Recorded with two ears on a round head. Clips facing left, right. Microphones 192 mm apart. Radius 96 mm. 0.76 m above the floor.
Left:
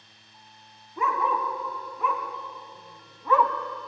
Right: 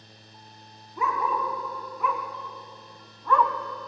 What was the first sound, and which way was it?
A dog barking, centre (ahead or behind).